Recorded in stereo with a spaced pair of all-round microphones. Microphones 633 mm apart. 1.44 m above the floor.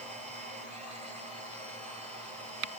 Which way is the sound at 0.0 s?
10° right (ahead or behind).